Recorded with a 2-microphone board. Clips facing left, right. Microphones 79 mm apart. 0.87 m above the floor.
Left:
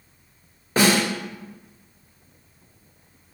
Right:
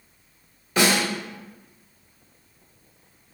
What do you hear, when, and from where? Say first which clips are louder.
0.8 s a snare drum: left 2 dB; 40° left (ahead or behind), 1.2 m